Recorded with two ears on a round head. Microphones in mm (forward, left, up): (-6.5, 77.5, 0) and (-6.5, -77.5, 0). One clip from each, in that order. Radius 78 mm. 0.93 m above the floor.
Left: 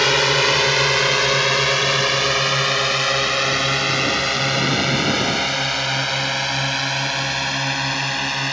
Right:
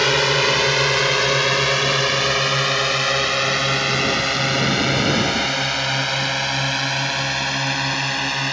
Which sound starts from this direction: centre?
A drone, at 0.0 s.